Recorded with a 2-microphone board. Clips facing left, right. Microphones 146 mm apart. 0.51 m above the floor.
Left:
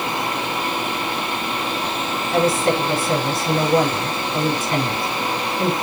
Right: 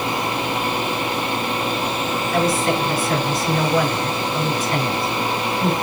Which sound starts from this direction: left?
A woman speaking, at 2.3 s.